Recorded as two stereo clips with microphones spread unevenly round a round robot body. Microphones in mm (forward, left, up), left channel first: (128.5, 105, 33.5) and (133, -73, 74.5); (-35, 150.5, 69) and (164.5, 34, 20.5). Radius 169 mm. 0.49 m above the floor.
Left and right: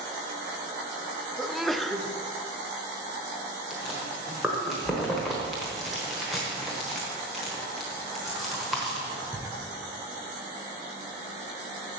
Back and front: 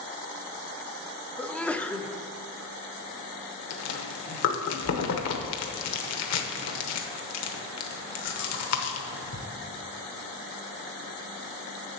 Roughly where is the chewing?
Behind.